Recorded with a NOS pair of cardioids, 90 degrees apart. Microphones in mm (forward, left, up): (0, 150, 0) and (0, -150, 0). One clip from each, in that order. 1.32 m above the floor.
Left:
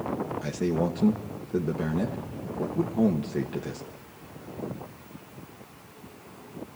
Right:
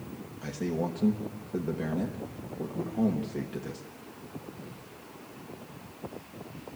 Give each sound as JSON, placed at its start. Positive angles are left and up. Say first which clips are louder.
{"t": 0.4, "sound": "a man speaking", "louder": "left 2 dB", "azimuth_deg": 25, "distance_m": 1.3}